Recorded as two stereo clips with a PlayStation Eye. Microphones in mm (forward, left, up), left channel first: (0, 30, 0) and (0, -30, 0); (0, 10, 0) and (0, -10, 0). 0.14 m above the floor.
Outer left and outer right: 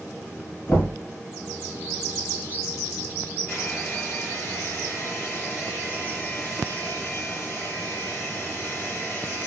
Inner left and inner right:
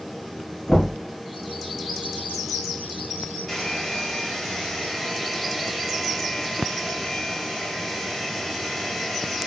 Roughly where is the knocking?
Left.